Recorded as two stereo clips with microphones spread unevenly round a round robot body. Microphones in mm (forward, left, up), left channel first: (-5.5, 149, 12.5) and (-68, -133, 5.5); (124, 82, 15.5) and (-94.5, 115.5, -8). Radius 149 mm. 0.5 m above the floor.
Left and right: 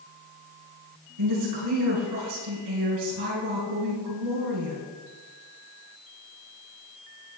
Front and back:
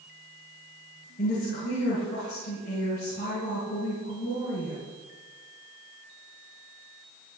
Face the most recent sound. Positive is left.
turn(degrees=-70)